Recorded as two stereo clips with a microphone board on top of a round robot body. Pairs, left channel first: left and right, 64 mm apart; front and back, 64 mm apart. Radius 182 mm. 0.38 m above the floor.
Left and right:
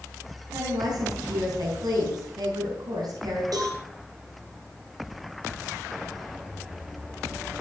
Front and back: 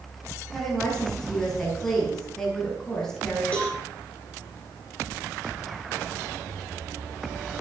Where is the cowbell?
70° right, 7 m.